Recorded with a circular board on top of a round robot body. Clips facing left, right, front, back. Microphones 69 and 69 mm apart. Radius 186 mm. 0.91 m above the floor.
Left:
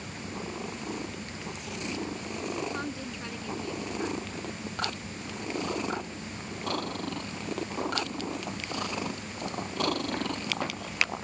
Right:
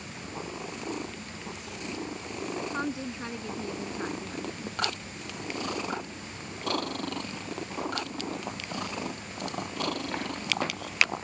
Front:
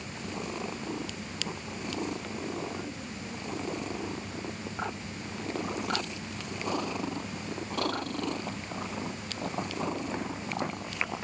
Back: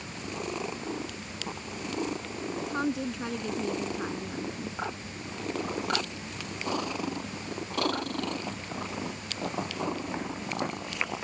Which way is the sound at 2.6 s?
160° right.